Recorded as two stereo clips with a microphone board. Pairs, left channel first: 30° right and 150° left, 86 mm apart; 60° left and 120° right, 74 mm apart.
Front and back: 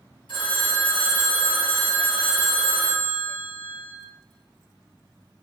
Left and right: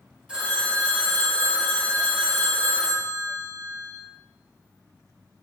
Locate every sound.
0.3 s a phone ringing: 45° right, 1.3 m